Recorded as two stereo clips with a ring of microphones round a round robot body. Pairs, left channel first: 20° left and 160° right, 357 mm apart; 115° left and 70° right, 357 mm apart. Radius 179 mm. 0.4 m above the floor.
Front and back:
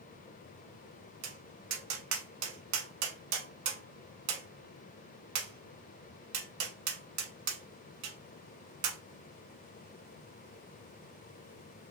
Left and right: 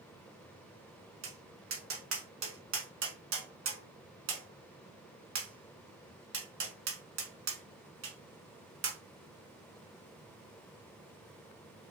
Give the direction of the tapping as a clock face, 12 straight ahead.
4 o'clock.